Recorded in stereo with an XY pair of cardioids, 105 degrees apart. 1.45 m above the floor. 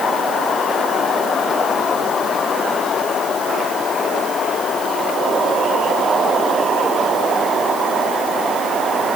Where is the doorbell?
I don't hear a doorbell.